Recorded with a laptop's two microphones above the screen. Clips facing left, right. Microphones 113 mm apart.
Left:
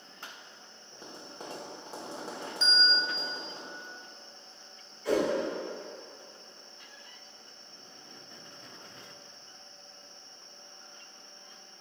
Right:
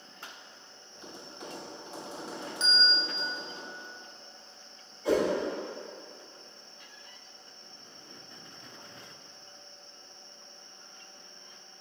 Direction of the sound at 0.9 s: 40° left (ahead or behind).